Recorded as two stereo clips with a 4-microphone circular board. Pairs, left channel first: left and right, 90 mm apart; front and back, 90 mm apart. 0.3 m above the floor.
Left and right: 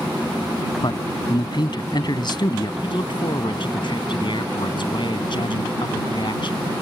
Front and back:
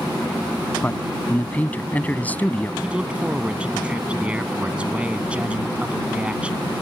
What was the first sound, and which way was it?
A man speaking, 70° left.